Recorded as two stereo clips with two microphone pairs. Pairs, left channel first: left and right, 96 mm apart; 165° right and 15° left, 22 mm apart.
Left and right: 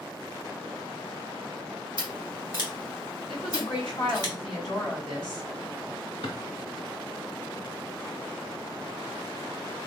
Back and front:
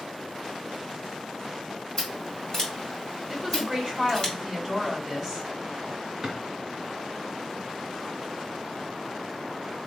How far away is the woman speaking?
About 2.5 m.